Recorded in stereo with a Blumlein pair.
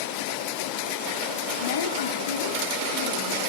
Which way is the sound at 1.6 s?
60° left.